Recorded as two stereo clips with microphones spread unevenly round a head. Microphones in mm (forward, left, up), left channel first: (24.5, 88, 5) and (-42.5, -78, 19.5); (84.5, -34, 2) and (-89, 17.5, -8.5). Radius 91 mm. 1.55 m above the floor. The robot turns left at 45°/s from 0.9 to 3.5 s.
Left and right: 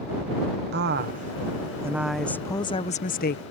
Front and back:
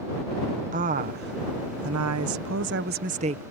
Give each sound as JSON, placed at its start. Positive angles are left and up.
{"t": 0.7, "sound": "a woman speaking", "azimuth_deg": -145}